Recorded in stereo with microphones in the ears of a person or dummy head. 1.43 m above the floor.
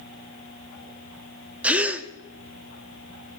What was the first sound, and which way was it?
A gasp, 5° right (ahead or behind).